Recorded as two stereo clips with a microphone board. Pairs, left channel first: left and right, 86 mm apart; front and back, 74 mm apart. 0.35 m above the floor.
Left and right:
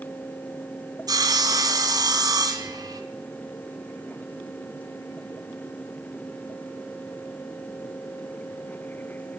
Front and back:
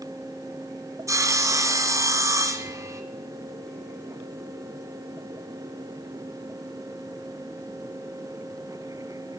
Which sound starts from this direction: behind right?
Sawing, at 1.1 s.